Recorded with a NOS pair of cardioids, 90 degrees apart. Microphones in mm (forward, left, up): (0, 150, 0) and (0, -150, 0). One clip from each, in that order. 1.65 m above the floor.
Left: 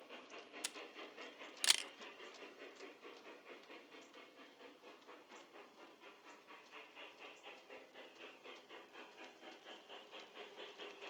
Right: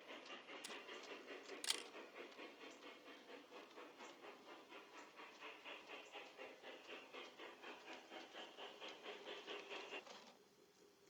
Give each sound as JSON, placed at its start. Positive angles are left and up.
{"t": 0.6, "sound": "a camera shutter", "azimuth_deg": 50, "distance_m": 0.5}